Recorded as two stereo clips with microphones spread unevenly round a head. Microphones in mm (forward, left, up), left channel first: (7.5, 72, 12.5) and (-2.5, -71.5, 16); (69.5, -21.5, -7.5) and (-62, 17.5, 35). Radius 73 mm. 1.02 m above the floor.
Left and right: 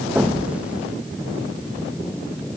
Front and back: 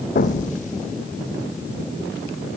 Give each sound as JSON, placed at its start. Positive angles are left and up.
{"t": 0.1, "sound": "an explosion", "azimuth_deg": -10, "distance_m": 1.1}